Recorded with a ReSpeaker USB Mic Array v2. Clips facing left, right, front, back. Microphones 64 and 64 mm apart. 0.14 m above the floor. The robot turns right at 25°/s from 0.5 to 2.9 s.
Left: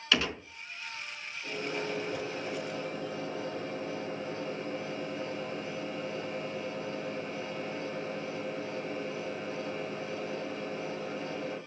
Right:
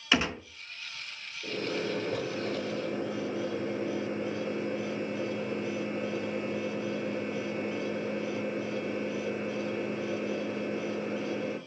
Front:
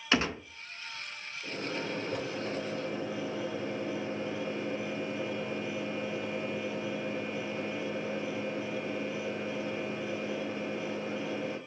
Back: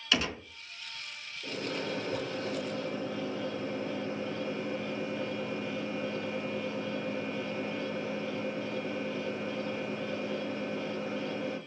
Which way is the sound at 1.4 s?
110° right.